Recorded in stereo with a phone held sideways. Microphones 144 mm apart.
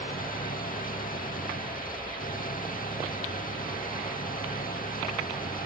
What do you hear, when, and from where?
0.0 s an engine running: 75° left (ahead or behind)